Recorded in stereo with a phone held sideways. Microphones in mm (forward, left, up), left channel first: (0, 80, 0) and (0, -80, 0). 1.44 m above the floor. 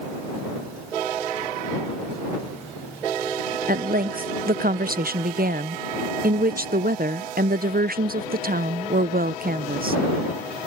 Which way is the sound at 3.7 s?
65° right (ahead or behind).